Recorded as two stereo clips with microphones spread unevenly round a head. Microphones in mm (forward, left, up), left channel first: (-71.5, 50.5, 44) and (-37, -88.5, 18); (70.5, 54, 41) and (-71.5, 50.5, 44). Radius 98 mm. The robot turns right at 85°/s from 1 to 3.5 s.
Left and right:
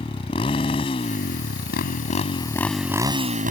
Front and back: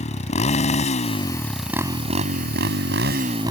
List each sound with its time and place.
0.0 s a motorcycle: 40° left; by 3.5 s 105° right